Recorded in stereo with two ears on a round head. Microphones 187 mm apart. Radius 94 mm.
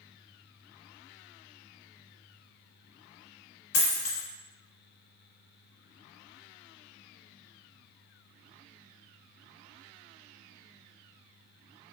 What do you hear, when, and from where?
3.7 s a dropped coin: 75° left (ahead or behind), 1.5 m